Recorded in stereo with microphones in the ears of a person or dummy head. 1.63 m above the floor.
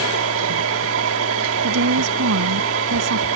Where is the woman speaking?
65° right (ahead or behind).